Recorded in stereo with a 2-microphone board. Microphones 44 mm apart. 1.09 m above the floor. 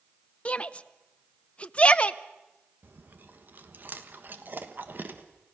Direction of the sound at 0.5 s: 30° left (ahead or behind).